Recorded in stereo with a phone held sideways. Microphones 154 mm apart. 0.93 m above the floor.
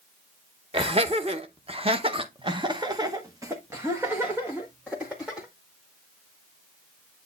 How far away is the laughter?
About 1.3 m.